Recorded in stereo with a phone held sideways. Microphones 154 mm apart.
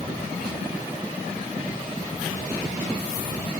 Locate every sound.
Only background noise.